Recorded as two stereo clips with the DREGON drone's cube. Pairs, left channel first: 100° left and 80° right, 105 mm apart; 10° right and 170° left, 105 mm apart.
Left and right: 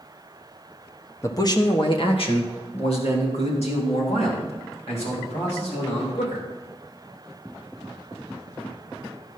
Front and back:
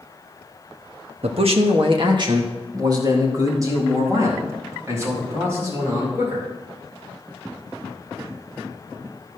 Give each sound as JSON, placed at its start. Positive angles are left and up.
{"t": 1.2, "sound": "a man speaking", "azimuth_deg": 160, "distance_m": 1.2}